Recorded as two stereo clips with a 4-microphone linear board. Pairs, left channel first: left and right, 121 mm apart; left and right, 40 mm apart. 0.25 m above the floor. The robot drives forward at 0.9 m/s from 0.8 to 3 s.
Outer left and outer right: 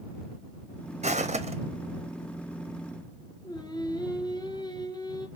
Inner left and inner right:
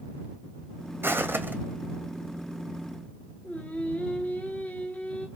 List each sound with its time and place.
1.0 s footsteps: 65° right (ahead or behind), 0.6 m; by 1.6 s 55° right (ahead or behind), 0.6 m
3.4 s singing: 35° left (ahead or behind), 0.9 m